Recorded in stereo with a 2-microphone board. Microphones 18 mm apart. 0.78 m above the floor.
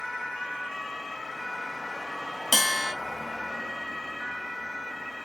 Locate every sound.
2.5 s a bell: 5° left (ahead or behind), 0.9 m